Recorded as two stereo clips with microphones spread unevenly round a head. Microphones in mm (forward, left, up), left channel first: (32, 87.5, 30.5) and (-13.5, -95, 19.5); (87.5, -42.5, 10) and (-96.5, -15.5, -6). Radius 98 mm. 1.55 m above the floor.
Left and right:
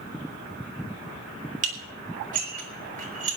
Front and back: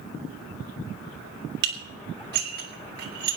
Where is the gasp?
I don't hear a gasp.